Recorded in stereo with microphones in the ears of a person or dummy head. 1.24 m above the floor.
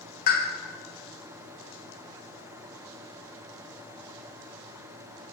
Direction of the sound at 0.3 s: 50° left (ahead or behind).